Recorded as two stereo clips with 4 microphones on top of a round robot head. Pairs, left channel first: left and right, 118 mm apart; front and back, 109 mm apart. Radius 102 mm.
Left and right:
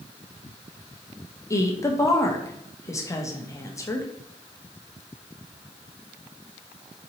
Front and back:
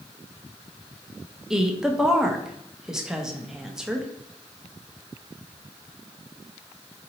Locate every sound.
1.5 s a woman speaking: 100° left, 0.9 m